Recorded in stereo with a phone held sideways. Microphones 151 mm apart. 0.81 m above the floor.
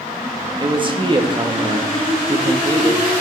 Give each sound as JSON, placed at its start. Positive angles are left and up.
{"t": 0.6, "sound": "a man speaking", "side_deg": -35, "distance_m": 1.4}